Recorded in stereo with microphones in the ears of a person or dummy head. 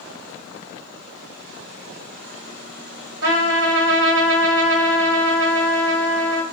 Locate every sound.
3.2 s a trumpet: 60° right (ahead or behind), 1.6 m